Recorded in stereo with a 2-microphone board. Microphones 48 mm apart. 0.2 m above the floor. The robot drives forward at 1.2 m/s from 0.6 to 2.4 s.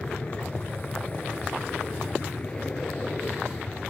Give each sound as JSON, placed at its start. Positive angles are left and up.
{"t": 0.0, "sound": "an aircraft", "side_deg": 25}